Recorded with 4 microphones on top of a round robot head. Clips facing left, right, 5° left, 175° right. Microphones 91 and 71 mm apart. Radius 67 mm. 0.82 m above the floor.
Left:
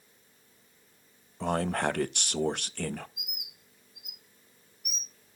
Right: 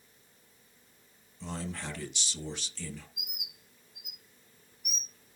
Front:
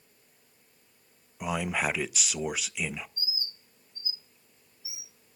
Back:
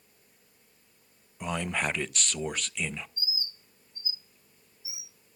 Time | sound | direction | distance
1.4 | a man speaking | 90° left | 0.6 m
3.2 | a bird | 105° right | 3 m